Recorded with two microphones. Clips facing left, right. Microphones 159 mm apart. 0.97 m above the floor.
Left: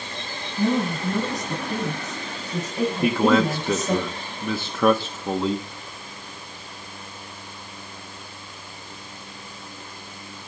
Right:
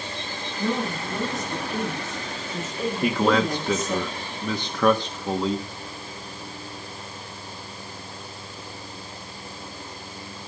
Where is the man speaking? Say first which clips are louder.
Left 2 dB; 5° left (ahead or behind), 1.1 m.